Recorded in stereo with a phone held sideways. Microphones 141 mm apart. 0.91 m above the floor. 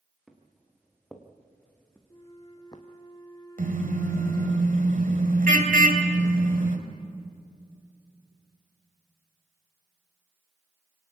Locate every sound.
0.3 s footsteps: centre (ahead or behind), 4.5 m; by 2.8 s 30° left (ahead or behind), 1.9 m
2.1 s a flute: 30° left (ahead or behind), 2.5 m
3.6 s a car horn: 65° right (ahead or behind), 2.5 m